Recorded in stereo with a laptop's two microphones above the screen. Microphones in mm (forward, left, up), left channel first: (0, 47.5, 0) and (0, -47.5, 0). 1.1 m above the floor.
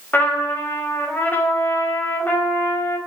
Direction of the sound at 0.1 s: 20° left (ahead or behind).